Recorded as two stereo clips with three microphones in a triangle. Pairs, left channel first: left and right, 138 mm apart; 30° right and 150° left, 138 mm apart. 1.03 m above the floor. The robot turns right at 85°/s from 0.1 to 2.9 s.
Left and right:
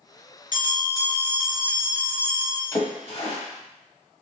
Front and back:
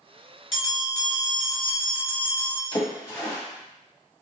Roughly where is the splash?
Ahead left.